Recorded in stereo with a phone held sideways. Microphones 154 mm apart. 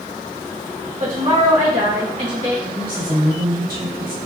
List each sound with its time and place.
1.0 s a woman speaking: 55° right (ahead or behind), 1.6 m
2.6 s a woman speaking: 75° right (ahead or behind), 1.8 m